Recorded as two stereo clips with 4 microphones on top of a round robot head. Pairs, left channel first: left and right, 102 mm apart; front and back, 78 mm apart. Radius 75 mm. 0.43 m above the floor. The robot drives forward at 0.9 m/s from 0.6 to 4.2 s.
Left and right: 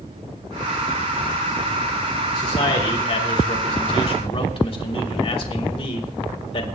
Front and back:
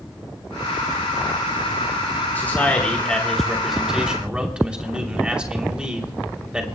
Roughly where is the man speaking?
Ahead left.